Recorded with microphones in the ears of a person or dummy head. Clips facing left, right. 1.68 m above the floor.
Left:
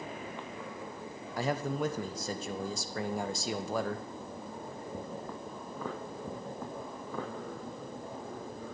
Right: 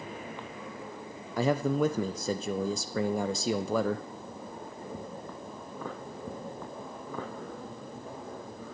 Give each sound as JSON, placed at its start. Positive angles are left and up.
{"t": 1.4, "sound": "a man speaking", "side_deg": -70, "distance_m": 0.6}